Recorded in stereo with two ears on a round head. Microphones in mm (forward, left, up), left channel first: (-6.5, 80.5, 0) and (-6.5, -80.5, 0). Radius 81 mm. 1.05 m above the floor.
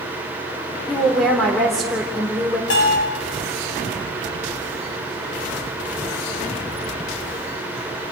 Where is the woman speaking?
Centre (ahead or behind), 3.5 m.